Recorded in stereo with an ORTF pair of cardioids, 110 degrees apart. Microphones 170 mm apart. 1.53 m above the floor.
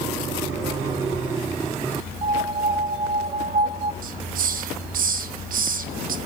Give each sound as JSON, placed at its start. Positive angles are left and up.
{"t": 2.2, "sound": "a piano", "azimuth_deg": -35, "distance_m": 2.5}
{"t": 4.0, "sound": "a hiss", "azimuth_deg": -55, "distance_m": 1.2}